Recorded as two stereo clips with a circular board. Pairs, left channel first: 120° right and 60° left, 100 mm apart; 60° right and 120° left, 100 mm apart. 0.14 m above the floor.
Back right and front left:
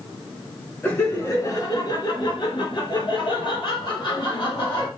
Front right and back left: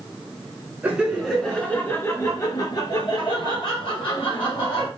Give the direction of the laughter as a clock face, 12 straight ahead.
6 o'clock.